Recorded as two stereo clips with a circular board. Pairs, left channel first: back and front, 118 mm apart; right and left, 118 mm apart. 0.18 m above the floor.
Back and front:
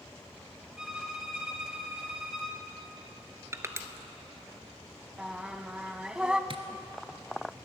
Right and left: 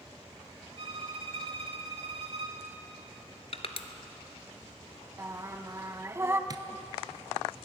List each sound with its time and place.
0.8 s a violin: 80° left, 1.5 m
3.5 s crushing: 65° right, 0.8 m
5.2 s singing: 70° left, 0.7 m
6.5 s tapping: 35° left, 0.8 m